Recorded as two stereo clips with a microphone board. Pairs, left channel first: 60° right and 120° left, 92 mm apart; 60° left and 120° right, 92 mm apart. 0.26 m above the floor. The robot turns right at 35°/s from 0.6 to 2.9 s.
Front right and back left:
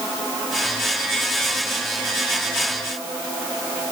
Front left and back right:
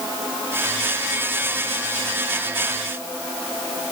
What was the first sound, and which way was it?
Only background noise.